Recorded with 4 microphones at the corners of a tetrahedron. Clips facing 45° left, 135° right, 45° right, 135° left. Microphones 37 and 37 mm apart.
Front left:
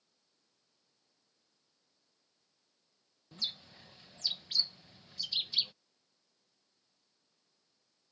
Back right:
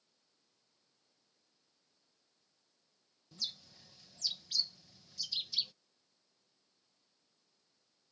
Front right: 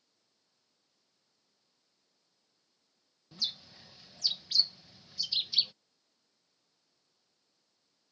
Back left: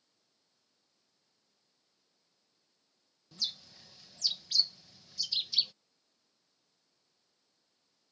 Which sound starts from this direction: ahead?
A bird, at 3.3 s.